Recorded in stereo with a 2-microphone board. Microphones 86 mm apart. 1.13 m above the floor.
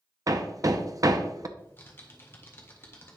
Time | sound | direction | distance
0.3 | hammering | 45° right (ahead or behind) | 0.5 m
1.6 | typing on a keyboard | 30° left (ahead or behind) | 1.4 m